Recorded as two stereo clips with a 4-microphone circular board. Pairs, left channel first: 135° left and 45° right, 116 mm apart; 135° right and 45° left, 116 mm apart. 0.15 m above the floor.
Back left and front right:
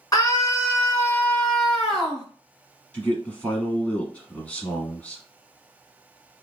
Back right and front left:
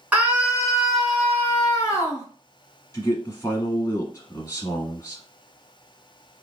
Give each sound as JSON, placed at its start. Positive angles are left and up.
{"t": 0.1, "sound": "a scream", "azimuth_deg": 110, "distance_m": 1.3}
{"t": 2.9, "sound": "a man speaking", "azimuth_deg": -160, "distance_m": 1.3}